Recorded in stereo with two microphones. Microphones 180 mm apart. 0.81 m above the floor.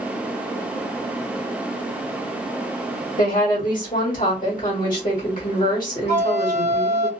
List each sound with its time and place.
3.2 s a woman speaking: 50° left (ahead or behind), 1.4 m
6.1 s a flute: 70° left (ahead or behind), 1.0 m